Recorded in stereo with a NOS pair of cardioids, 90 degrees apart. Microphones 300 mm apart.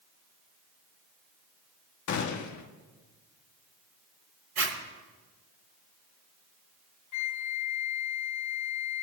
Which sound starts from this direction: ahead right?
A zipper, at 4.6 s.